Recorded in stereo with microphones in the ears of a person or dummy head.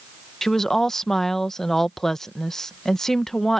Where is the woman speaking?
5° left (ahead or behind).